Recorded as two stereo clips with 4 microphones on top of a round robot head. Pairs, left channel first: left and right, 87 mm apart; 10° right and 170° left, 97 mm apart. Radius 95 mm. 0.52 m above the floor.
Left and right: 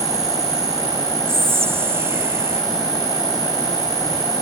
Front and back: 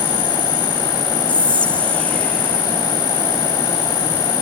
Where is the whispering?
75° right.